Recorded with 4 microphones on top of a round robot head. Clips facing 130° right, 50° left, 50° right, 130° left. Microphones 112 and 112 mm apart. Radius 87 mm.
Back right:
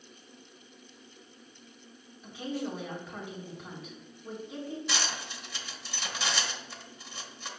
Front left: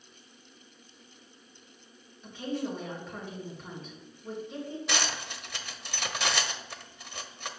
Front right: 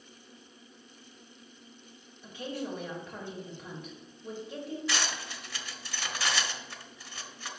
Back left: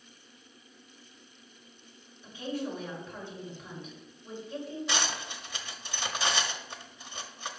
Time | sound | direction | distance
2.2 | a woman speaking | 45° right | 3 m
4.9 | cutlery clinking | 60° left | 0.9 m